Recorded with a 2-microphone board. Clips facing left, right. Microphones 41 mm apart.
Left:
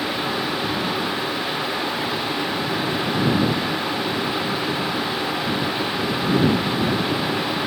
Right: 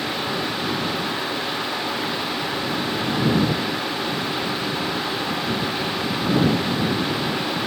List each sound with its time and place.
Only background noise.